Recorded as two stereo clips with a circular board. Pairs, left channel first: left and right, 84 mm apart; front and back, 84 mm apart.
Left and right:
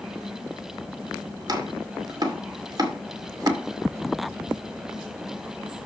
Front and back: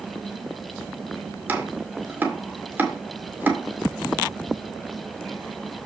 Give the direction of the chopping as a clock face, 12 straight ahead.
4 o'clock.